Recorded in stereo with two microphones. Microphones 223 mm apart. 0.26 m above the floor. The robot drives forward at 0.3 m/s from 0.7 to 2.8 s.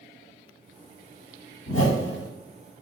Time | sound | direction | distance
1.7 | a whoosh | 80° left | 1.2 m